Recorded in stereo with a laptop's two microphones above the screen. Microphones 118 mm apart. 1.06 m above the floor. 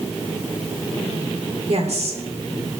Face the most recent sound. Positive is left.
turn(degrees=-65)  # may be behind; listen again after turning